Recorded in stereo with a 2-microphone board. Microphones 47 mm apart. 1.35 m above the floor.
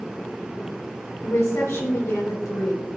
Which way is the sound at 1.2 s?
85° left.